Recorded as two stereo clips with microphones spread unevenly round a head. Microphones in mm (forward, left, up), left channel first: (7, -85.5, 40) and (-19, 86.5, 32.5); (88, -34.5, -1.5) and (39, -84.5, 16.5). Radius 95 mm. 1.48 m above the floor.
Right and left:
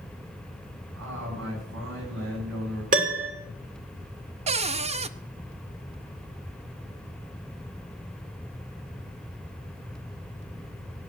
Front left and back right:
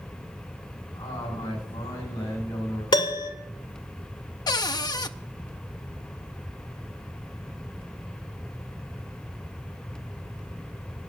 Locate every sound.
0.9 s a man speaking: 80° left, 9 m
2.9 s a piano: 50° left, 2.5 m
4.5 s a cupboard door: 45° left, 0.6 m